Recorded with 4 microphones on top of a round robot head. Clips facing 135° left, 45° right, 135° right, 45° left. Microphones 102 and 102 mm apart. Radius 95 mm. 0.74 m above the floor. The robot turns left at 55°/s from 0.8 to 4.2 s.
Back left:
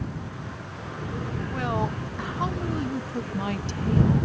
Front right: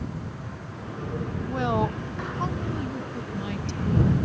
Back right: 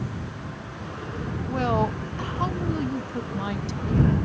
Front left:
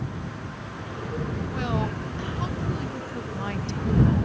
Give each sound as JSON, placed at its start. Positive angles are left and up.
{"t": 1.5, "sound": "a woman speaking", "azimuth_deg": -95}